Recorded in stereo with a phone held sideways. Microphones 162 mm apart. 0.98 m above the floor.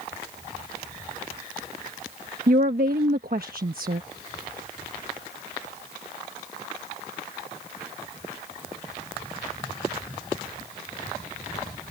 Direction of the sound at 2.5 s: 65° right (ahead or behind).